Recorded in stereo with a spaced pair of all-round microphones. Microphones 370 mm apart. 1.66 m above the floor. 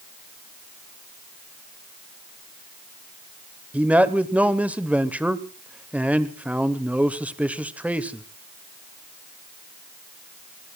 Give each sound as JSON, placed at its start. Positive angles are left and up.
{"t": 3.7, "sound": "a man speaking", "side_deg": -5, "distance_m": 1.0}